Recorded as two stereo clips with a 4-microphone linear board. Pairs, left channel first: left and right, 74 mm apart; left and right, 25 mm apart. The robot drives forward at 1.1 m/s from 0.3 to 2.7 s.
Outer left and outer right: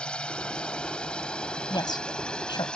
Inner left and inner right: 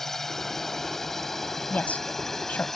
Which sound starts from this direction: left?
A woman speaking, at 1.7 s.